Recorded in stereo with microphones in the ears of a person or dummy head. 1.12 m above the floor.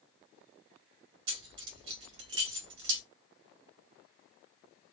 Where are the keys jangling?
70° right (ahead or behind), 1.1 m.